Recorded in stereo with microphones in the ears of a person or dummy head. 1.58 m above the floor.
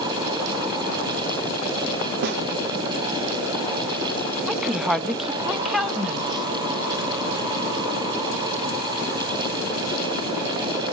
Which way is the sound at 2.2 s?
55° right (ahead or behind).